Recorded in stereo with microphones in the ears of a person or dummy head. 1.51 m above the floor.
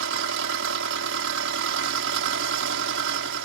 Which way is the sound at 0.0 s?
75° right (ahead or behind).